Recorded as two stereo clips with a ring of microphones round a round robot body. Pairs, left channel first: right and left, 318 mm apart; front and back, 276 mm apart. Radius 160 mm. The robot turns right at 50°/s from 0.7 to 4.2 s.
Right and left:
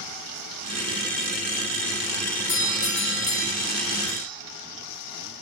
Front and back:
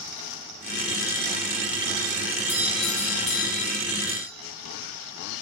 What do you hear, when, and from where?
2.5 s a doorbell: 105° right, 3.5 m; by 4.3 s 20° right, 3.5 m